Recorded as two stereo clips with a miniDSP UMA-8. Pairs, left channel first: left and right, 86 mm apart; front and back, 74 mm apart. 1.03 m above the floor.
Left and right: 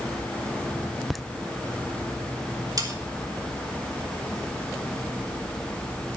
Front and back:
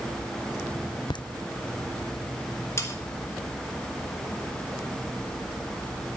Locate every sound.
1.1 s laughter: straight ahead, 0.5 m
2.8 s sawing: 50° right, 2.0 m